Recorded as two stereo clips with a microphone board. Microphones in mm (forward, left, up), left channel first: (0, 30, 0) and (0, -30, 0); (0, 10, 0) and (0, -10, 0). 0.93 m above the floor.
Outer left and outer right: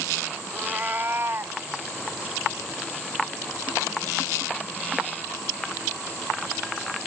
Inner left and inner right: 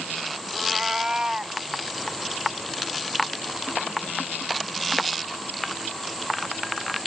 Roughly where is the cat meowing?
Right.